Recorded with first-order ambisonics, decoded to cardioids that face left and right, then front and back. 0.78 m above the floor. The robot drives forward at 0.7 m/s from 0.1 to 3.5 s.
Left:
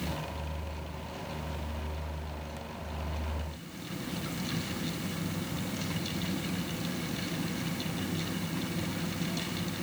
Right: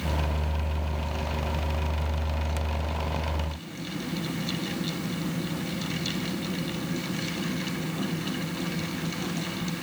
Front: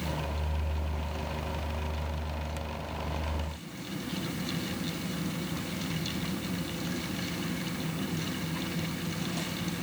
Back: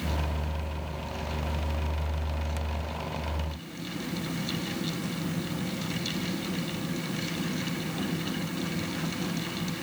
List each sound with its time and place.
Only background noise.